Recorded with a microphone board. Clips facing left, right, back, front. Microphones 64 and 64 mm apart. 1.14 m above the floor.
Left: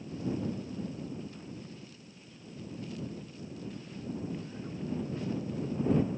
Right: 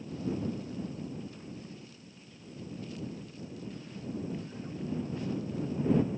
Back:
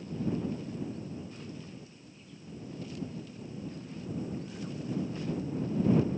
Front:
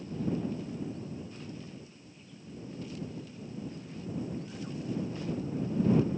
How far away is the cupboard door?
I don't hear a cupboard door.